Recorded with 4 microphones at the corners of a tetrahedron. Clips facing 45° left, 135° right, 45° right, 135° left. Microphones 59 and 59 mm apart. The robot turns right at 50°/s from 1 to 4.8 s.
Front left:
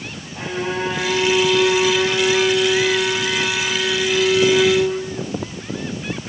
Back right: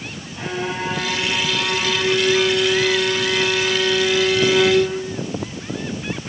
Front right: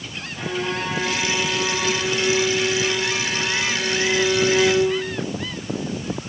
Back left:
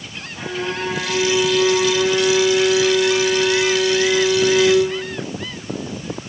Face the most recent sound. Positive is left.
turn(degrees=-120)